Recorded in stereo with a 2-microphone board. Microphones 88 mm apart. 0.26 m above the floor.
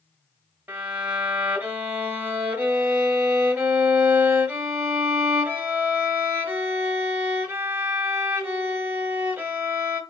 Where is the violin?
20° right (ahead or behind), 1.0 m.